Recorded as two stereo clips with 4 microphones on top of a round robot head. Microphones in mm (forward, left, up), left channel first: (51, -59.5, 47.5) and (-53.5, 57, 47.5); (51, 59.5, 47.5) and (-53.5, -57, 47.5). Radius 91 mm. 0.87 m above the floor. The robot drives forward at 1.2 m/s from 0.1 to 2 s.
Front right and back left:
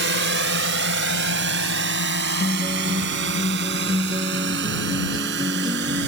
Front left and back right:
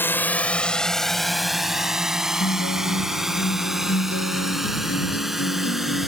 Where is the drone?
125° left; by 6.1 s 140° left.